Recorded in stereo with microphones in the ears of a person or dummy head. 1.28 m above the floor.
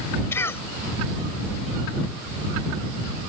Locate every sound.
0.3 s a cough: 15° left (ahead or behind)